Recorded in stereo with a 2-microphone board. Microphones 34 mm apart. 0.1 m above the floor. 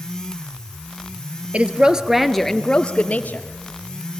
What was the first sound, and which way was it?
A woman speaking, 35° right (ahead or behind).